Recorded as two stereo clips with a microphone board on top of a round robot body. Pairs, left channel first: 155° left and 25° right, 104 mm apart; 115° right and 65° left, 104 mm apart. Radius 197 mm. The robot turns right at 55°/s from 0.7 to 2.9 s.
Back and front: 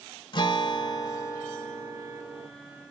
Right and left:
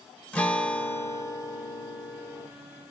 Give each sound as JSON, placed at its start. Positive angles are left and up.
{"t": 0.3, "sound": "a guitar", "azimuth_deg": 175, "distance_m": 0.8}